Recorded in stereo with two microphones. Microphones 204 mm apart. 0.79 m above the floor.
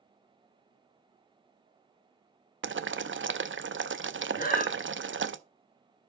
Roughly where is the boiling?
Right.